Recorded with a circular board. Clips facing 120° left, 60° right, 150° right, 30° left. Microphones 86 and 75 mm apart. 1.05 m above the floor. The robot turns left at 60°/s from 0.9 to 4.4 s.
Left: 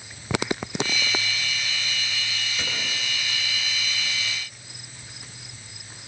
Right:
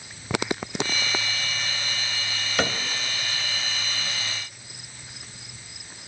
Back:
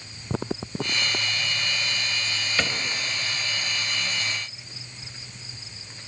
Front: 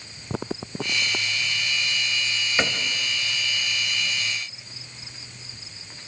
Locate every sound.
2.6 s a cupboard door: 40° right, 2 m; by 2.8 s 55° right, 2 m